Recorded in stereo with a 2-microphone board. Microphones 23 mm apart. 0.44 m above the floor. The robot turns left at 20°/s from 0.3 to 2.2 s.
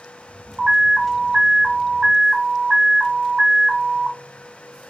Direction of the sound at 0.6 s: 75° right.